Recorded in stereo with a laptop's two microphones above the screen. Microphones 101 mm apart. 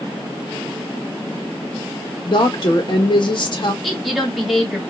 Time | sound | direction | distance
2.3 | a woman speaking | 50° left (ahead or behind) | 1.1 m
3.8 | a woman speaking | centre (ahead or behind) | 1.7 m